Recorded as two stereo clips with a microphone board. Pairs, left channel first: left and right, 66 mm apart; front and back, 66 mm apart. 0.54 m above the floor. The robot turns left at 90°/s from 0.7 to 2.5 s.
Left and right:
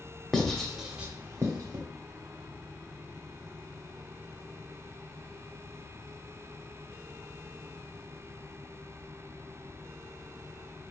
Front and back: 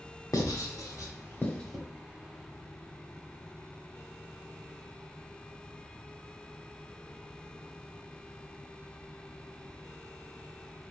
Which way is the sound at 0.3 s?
10° left.